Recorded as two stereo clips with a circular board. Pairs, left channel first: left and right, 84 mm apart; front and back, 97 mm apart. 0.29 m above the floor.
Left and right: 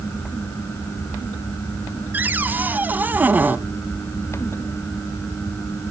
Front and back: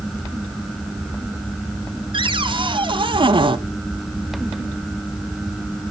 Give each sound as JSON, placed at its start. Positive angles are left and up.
{"t": 2.1, "sound": "a cupboard door", "azimuth_deg": -155, "distance_m": 0.7}